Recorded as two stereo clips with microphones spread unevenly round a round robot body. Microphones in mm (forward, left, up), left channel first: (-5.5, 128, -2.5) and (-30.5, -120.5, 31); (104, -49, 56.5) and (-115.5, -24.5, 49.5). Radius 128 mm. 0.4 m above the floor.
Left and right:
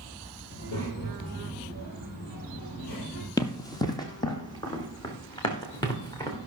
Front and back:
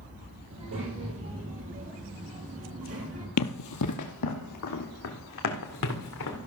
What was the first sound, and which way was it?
A child speaking, 135° left.